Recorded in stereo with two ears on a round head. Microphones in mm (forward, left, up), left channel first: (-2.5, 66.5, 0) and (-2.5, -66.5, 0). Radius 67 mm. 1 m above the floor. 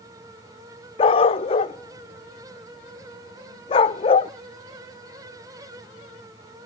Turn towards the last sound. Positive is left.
turn(degrees=35)  # may be behind; listen again after turning